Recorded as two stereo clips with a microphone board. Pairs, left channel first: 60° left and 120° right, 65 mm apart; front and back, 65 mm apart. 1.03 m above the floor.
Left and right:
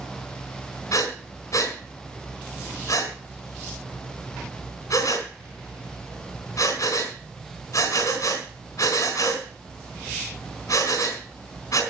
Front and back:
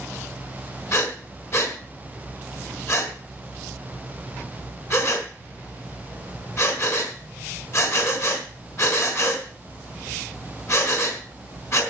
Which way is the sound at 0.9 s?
35° left.